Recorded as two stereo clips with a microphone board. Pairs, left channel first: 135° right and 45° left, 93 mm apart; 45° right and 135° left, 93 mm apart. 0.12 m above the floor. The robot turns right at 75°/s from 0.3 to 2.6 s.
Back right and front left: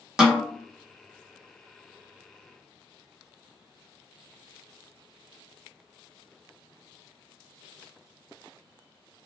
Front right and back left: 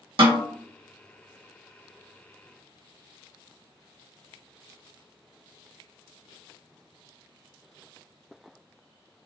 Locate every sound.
0.2 s a snare drum: 130° left, 1.1 m; by 0.4 s 140° left, 1.1 m